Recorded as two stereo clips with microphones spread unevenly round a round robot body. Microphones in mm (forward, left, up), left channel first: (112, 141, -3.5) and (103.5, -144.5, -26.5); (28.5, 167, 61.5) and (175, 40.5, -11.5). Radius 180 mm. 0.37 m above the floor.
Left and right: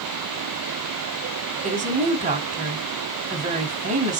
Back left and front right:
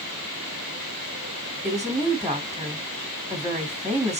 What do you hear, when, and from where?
1.6 s a woman speaking: 65° right, 1.3 m